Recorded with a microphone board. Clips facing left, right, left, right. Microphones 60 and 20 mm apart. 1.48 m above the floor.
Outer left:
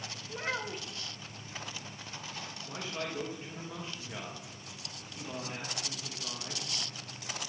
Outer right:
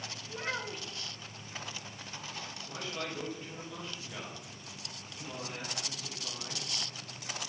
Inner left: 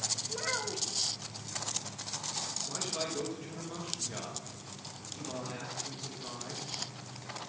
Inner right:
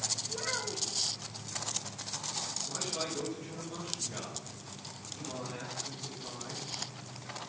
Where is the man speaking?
25° left (ahead or behind), 2.5 m.